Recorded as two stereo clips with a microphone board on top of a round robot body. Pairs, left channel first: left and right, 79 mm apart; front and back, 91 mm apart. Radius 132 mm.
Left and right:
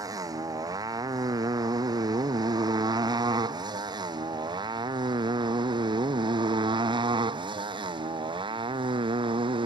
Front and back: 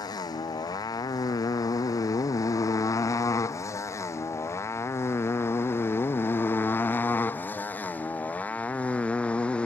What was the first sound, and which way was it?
A motorcycle, 50° right.